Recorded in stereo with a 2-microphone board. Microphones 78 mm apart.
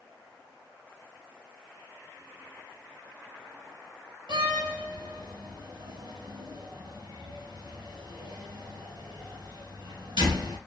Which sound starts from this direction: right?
A door slam, at 4.3 s.